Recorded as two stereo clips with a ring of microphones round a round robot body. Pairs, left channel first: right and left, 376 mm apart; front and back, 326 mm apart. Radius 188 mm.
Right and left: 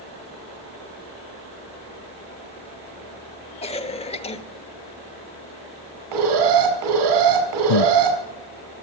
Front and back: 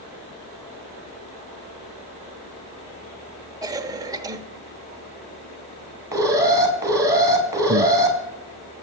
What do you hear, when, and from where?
3.6 s a cough: 125° right, 1.0 m
6.1 s an alarm: 100° left, 5 m
7.7 s breathing: 115° right, 0.5 m